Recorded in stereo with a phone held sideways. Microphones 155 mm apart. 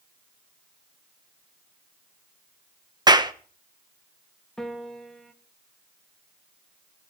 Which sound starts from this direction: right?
A clap, at 3.1 s.